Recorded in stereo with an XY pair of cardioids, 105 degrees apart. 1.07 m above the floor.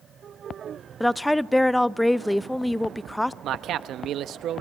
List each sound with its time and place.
1.0 s a woman speaking: 10° left, 0.7 m
3.4 s a man speaking: 70° right, 1.1 m